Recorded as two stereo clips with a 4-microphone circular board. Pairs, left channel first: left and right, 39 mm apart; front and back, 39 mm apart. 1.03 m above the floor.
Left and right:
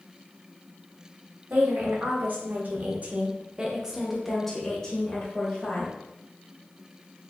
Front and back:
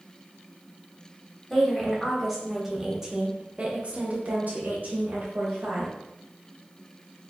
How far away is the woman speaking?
About 1.4 m.